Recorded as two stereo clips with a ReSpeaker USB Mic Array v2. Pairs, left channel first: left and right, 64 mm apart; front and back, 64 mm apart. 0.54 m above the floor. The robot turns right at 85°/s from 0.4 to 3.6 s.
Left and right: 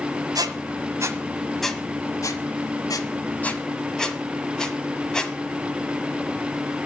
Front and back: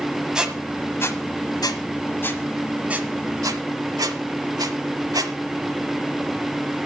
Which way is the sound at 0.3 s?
100° right.